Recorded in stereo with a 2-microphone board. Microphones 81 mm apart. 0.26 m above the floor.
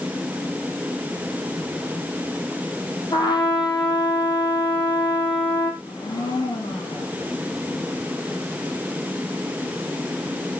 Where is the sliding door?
No sliding door in this recording.